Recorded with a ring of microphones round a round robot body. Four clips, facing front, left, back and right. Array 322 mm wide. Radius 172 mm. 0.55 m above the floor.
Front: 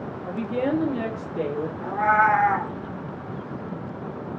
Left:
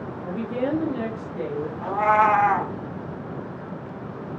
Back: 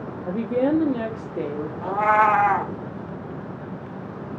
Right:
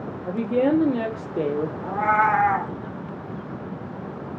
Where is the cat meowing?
150° left, 0.7 m.